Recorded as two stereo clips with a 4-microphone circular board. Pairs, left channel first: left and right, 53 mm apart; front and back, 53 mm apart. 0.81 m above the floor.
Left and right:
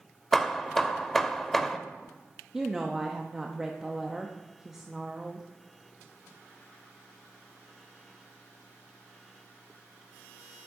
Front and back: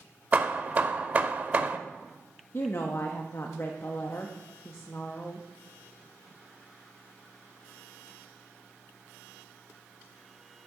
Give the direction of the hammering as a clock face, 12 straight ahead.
6 o'clock.